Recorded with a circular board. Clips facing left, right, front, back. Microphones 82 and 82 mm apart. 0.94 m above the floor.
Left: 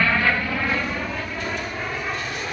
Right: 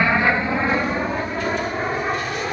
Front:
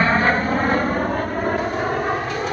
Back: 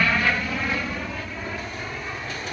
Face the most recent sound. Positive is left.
turn(degrees=-30)